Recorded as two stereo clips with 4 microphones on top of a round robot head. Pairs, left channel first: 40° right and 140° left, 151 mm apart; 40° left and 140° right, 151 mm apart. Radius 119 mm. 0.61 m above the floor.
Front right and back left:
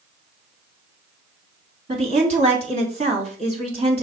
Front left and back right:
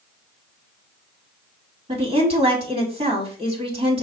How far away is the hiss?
I don't hear a hiss.